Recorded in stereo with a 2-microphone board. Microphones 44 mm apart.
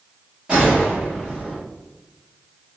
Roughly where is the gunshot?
Right.